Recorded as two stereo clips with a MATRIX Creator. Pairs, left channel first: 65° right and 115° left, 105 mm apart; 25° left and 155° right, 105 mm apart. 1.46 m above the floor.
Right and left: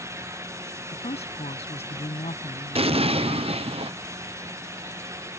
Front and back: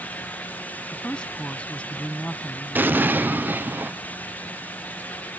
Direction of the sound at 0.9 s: 60° right.